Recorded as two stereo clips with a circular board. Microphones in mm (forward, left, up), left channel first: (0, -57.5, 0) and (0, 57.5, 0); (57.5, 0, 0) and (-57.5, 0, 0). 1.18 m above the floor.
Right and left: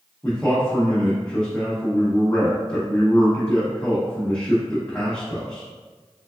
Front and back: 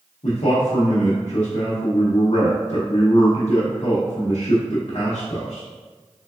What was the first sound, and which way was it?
A man speaking, 10° right.